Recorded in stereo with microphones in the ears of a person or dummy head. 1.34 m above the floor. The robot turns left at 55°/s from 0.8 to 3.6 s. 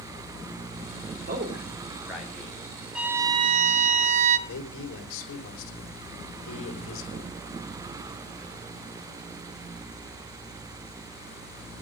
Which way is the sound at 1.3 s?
55° right (ahead or behind).